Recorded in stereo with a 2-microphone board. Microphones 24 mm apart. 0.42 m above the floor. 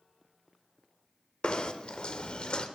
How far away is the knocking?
About 0.8 m.